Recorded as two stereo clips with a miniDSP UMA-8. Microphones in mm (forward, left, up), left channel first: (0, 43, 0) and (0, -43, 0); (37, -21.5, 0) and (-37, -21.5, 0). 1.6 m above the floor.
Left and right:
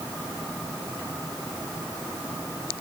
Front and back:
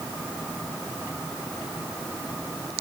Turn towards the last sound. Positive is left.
No sound to turn to.